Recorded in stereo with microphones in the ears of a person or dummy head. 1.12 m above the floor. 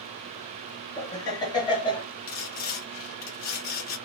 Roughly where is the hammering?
No hammering in this recording.